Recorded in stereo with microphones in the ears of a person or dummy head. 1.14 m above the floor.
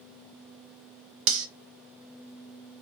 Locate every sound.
1.3 s cutlery clinking: 70° right (ahead or behind), 0.6 m